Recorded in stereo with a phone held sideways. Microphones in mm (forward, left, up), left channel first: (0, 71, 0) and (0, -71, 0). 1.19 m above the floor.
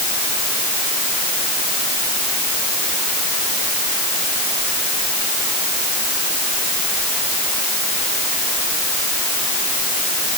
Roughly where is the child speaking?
No child speaking in this recording.